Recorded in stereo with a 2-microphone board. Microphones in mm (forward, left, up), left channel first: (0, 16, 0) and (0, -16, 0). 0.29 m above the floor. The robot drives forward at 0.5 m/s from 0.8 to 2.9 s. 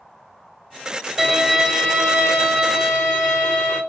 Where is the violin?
5° right (ahead or behind), 0.6 m; by 3.8 s centre (ahead or behind), 1.5 m.